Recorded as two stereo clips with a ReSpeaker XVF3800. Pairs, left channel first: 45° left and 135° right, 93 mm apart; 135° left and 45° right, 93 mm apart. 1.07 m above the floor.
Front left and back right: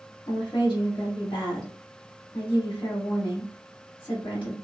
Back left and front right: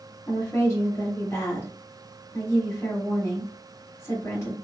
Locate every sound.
0.3 s a woman speaking: 75° left, 1.6 m